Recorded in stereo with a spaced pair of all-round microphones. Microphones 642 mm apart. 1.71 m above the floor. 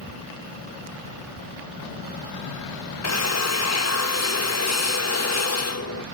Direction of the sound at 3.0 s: 25° left (ahead or behind).